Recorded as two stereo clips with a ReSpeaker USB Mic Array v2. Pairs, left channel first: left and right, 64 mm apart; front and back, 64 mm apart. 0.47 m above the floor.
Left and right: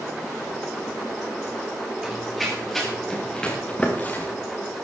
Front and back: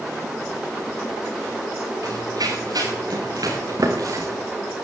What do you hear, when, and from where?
2.0 s running footsteps: 175° right, 5.5 m; by 4.3 s 145° left, 4 m